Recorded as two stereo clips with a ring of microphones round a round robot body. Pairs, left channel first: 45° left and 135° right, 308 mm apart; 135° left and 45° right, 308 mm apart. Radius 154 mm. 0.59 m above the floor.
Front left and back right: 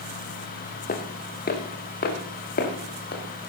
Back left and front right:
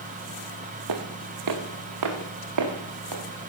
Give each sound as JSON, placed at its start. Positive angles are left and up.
{"t": 0.9, "sound": "footsteps", "azimuth_deg": -20, "distance_m": 2.5}